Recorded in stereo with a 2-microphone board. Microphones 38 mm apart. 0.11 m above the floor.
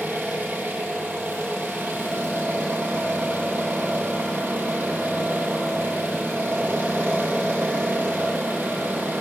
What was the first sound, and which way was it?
An engine running, 55° right (ahead or behind).